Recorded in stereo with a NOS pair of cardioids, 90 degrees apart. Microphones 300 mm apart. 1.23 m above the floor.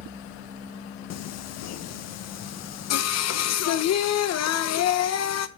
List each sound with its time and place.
1.1 s singing: 60° left, 0.8 m